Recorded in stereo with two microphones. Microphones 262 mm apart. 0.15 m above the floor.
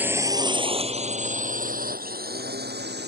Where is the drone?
5° right (ahead or behind); by 3.1 s 40° right (ahead or behind).